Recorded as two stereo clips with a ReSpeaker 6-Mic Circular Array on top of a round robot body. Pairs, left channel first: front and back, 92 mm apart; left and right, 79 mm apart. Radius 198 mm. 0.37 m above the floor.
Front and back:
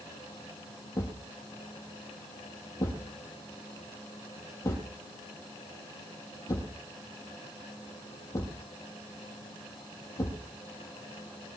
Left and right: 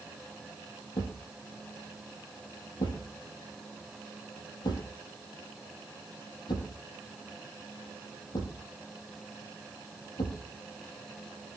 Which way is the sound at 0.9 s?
55° left.